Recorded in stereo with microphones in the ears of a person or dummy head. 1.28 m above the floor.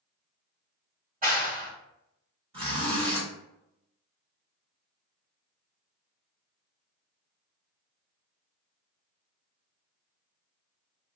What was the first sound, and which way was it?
A clap, 45° right (ahead or behind).